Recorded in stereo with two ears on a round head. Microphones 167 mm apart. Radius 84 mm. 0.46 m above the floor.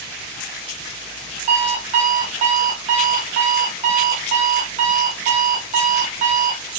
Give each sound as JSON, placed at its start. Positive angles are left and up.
{"t": 1.5, "sound": "an alarm clock", "side_deg": -40, "distance_m": 2.0}